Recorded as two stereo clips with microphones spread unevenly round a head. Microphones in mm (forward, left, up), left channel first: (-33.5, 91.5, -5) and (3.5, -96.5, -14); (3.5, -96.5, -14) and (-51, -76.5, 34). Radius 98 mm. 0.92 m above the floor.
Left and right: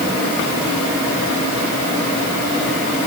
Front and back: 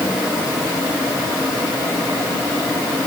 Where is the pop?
No pop in this recording.